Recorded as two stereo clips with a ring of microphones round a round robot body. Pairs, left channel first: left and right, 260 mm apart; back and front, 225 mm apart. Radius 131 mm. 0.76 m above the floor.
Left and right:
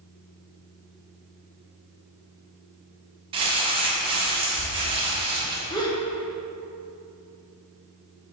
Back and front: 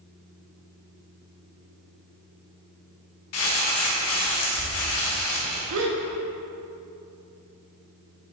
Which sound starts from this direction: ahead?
A gasp, at 5.7 s.